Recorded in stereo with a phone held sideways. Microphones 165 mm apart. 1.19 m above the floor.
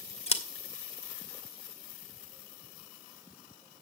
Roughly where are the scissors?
Left.